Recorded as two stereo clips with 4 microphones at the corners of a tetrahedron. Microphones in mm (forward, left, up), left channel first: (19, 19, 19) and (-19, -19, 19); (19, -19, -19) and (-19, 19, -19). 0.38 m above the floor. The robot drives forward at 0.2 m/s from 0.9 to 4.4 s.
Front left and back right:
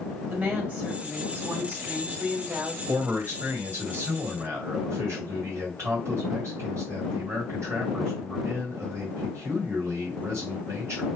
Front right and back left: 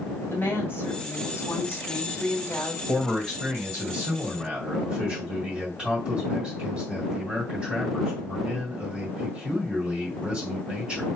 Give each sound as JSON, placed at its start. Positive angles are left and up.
{"t": 0.3, "sound": "a woman speaking", "azimuth_deg": -80, "distance_m": 1.9}
{"t": 2.9, "sound": "a man speaking", "azimuth_deg": -145, "distance_m": 2.0}